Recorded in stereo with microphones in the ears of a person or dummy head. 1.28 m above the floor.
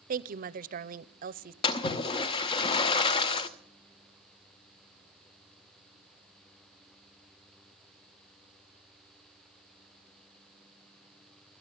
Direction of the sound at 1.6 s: 25° left (ahead or behind).